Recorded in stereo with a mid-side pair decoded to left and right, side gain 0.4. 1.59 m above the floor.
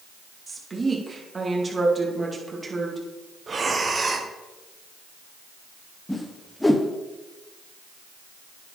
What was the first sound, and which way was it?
A woman speaking, 30° right.